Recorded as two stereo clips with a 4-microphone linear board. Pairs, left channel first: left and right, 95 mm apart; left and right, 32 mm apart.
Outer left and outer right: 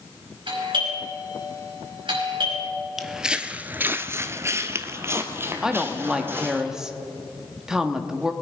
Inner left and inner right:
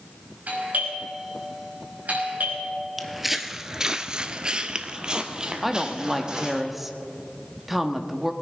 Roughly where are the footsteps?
Centre.